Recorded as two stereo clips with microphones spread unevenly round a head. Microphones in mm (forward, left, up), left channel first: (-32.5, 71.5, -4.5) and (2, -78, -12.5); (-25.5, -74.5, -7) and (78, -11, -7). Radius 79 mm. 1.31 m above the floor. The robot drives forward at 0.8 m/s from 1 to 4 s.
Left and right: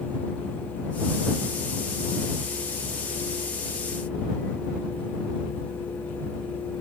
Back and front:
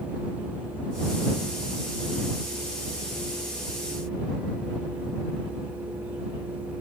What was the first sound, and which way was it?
Only background noise.